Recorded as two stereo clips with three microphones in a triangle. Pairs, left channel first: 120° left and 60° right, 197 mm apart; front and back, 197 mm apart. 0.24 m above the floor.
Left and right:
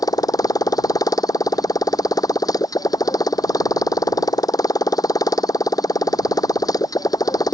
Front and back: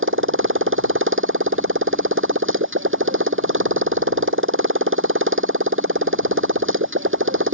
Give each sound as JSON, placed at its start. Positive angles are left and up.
{"t": 0.0, "sound": "a motorcycle", "azimuth_deg": -165}